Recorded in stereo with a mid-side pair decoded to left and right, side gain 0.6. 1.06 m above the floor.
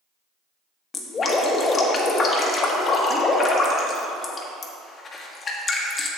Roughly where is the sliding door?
I don't hear a sliding door.